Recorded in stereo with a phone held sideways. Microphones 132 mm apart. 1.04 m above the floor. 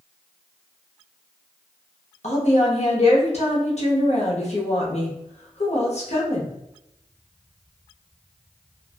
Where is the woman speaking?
55° left (ahead or behind), 0.9 m.